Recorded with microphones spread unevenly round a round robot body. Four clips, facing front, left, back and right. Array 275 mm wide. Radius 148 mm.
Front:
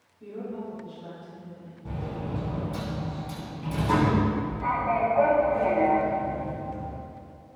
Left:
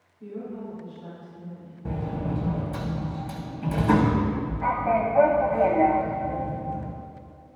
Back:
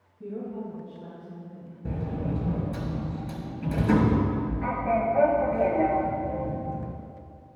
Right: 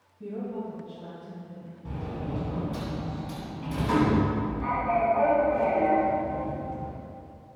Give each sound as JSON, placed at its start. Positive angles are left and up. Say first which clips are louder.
{"t": 0.2, "sound": "a woman speaking", "louder": "right 2 dB, back 1 dB", "azimuth_deg": -140, "distance_m": 3.0}
{"t": 1.9, "sound": "a sliding door", "louder": "left 5 dB, back 3 dB", "azimuth_deg": 140, "distance_m": 0.8}